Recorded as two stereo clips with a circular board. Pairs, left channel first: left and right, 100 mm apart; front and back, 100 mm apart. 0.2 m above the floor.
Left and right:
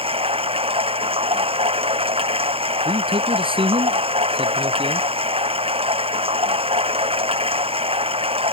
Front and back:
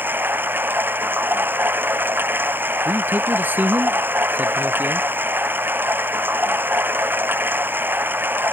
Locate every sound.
0.0 s running water: 110° right
2.9 s a man speaking: 110° right